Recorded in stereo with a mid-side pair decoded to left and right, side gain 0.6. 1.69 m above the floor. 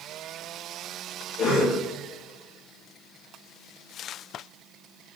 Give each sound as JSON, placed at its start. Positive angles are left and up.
{"t": 1.4, "sound": "a cough", "azimuth_deg": 60, "distance_m": 1.9}